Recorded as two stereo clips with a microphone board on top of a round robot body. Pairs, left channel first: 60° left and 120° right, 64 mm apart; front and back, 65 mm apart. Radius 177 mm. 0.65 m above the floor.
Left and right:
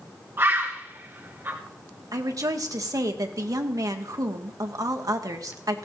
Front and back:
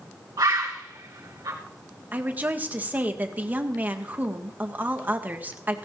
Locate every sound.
0.4 s a bird: 170° right, 2.5 m
2.1 s a woman speaking: 120° right, 1.6 m